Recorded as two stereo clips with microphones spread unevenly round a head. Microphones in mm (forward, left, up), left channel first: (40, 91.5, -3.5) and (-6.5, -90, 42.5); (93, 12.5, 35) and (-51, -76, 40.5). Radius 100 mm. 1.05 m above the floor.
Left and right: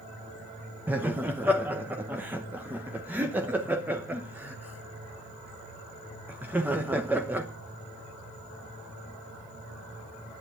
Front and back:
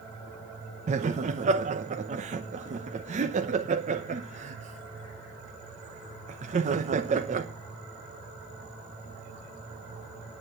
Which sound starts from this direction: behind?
Laughter, at 0.9 s.